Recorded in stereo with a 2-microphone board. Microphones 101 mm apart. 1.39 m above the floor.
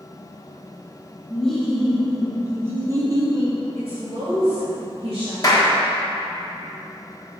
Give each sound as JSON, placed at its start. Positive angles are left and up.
{"t": 1.3, "sound": "laughter", "side_deg": 5, "distance_m": 1.4}
{"t": 3.8, "sound": "a woman speaking", "side_deg": -60, "distance_m": 2.5}
{"t": 5.4, "sound": "a clap", "side_deg": 35, "distance_m": 1.4}